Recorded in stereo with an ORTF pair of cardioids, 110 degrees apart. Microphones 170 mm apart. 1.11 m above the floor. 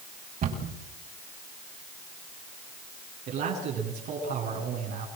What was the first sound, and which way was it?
A cupboard door, 55° right.